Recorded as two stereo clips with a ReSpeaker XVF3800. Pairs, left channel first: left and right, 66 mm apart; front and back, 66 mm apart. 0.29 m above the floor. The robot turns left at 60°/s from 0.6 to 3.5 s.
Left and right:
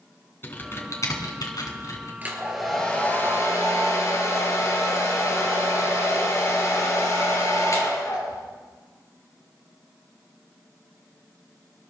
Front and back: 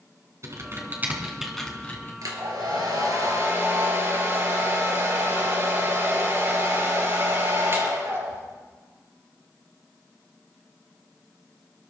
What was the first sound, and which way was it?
Typing on a keyboard, 145° left.